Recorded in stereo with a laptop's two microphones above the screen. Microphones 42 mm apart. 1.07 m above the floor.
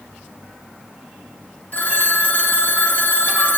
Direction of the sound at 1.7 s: 45° left (ahead or behind).